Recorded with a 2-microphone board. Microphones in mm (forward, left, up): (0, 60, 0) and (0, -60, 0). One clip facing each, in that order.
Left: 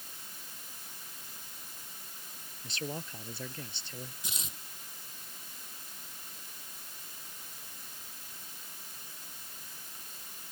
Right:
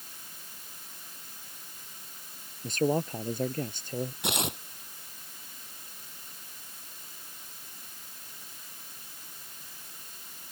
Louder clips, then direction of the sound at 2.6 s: Right 13 dB; 50° right (ahead or behind).